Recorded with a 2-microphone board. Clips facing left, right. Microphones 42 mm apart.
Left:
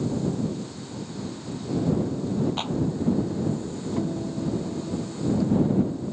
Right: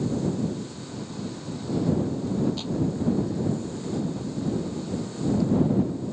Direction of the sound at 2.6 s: 45° left (ahead or behind).